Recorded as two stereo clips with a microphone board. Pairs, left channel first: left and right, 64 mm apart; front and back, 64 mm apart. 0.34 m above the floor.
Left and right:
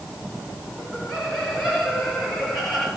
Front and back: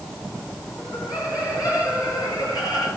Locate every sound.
0.8 s laughter: 5° left, 4.5 m